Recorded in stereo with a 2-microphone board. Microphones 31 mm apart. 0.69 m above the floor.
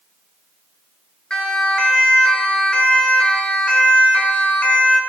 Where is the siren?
25° left (ahead or behind), 6.5 m; by 5.0 s 45° left (ahead or behind), 5 m.